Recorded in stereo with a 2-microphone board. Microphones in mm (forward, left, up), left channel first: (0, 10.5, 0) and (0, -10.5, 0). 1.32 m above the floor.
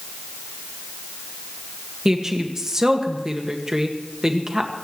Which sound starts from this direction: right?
A woman speaking, at 2.0 s.